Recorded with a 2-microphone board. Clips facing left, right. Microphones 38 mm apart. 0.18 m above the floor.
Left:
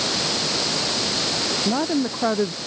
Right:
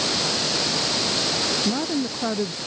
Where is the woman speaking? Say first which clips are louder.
Left 3 dB; 20° left (ahead or behind).